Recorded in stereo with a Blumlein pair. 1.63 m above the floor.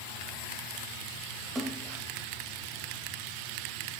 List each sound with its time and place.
1.6 s a splash: 20° right, 0.8 m